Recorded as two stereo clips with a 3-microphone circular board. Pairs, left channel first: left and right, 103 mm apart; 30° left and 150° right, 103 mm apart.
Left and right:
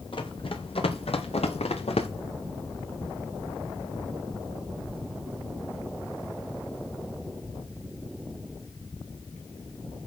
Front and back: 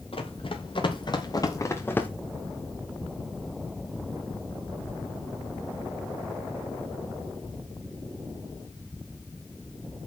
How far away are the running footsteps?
About 3.5 m.